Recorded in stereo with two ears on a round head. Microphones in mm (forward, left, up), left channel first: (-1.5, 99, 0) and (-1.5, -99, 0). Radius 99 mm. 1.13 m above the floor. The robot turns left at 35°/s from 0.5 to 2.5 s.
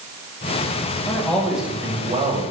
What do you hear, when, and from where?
1.1 s a man speaking: 15° left, 5.5 m; by 2.4 s 35° right, 5.5 m